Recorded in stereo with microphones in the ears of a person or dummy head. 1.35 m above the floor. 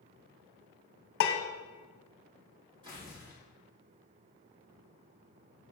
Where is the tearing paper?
30° right (ahead or behind), 1.9 m.